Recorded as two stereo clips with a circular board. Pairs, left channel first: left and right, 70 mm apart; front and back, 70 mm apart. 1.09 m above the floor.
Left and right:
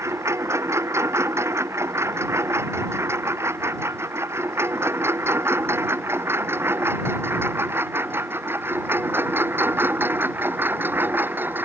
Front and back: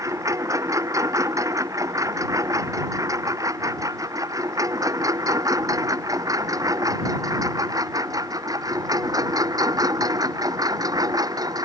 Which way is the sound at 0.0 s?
140° right.